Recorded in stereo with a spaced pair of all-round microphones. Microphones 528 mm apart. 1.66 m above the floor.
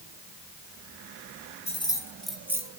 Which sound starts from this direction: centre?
Keys jangling, at 1.7 s.